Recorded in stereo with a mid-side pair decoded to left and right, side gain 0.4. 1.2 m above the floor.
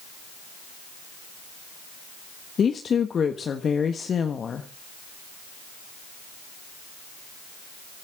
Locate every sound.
2.6 s a woman speaking: 50° left, 1.4 m